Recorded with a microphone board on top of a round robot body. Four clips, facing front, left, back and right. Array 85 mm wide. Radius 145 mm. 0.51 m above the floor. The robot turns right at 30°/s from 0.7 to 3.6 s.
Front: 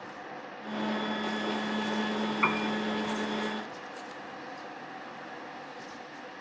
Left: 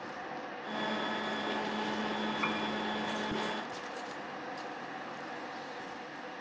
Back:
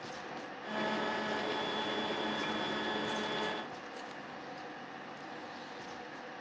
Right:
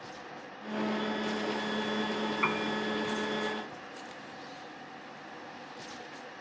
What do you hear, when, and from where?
2.4 s a piano: 20° right; by 2.7 s 10° right